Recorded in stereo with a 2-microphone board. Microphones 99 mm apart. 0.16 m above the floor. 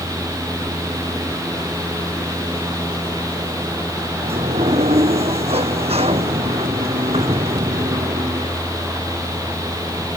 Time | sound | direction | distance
4.2 | a sliding door | 80° right | ?